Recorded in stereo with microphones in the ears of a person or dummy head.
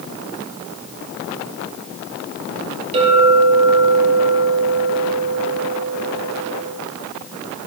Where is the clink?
40° right (ahead or behind), 4.5 m.